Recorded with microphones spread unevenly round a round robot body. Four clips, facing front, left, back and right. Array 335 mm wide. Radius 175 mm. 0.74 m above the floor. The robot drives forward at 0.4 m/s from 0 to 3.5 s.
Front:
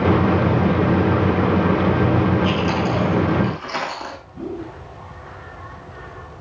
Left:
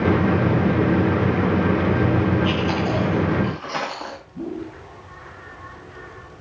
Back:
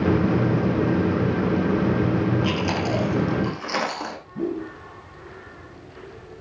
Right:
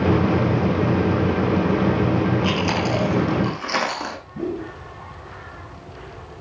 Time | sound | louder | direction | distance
2.4 | chewing | even, front 4 dB | 115° right | 9.5 m
4.3 | a whoosh | right 3 dB, back 3 dB | 105° right | 4.5 m